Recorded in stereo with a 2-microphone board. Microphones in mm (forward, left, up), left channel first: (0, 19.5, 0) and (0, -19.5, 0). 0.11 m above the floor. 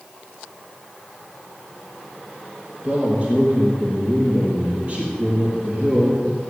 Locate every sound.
2.8 s a man speaking: 30° right (ahead or behind), 4 m